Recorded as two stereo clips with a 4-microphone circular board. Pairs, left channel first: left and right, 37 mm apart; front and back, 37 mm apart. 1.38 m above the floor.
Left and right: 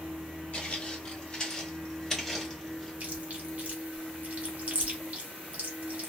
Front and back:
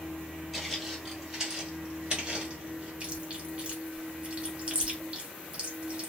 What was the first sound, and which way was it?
Footsteps, 90° left.